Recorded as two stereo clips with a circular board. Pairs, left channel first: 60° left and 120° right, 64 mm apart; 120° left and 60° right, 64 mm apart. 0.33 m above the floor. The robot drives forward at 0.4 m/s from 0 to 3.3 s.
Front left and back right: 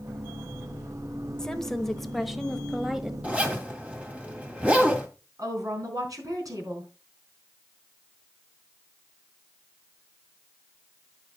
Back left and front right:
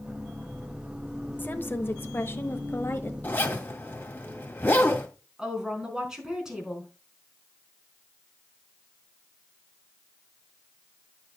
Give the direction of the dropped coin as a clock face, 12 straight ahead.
No dropped coin in this recording.